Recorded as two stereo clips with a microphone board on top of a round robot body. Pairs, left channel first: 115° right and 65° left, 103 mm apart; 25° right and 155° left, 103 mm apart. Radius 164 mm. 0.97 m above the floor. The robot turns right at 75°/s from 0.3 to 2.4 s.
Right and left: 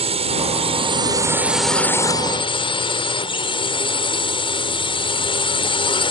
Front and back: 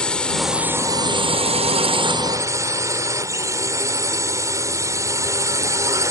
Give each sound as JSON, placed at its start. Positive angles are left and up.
{"t": 0.0, "sound": "a drone", "azimuth_deg": 60}